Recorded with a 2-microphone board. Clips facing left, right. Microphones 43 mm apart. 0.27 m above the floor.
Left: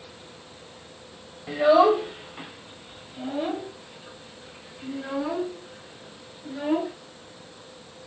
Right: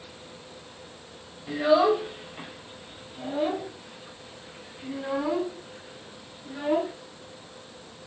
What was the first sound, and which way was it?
A child speaking, 25° left (ahead or behind).